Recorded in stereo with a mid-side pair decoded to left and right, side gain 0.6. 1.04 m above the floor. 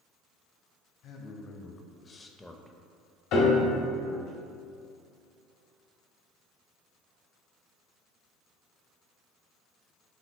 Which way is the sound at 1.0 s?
55° left.